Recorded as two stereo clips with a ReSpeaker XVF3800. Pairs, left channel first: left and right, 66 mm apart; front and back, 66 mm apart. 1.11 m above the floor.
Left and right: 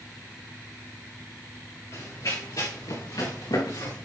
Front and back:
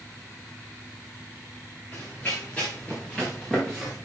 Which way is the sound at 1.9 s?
55° left.